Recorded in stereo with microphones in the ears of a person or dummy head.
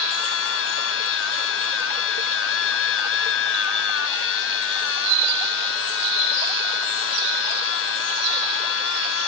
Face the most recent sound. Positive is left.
turn(degrees=70)  # may be behind; listen again after turning